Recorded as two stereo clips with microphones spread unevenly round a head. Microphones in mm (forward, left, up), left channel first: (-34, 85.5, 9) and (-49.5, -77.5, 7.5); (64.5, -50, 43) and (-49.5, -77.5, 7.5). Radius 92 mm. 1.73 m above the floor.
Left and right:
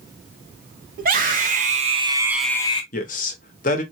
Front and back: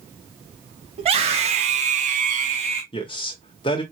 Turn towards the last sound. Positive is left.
turn(degrees=45)